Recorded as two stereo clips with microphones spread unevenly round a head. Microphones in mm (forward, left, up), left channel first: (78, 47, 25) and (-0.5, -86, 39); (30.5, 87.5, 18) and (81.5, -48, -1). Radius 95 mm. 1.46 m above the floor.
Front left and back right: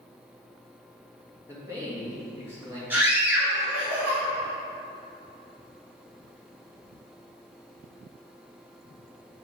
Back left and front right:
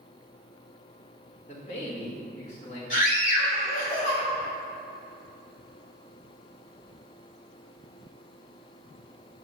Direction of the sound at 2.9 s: 160° left.